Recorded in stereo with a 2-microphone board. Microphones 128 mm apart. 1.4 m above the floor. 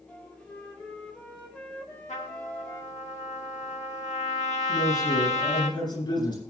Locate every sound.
0.1 s a flute: 10° left (ahead or behind), 4 m
2.1 s a trumpet: 65° left (ahead or behind), 1.7 m
4.7 s a man speaking: 35° left (ahead or behind), 9 m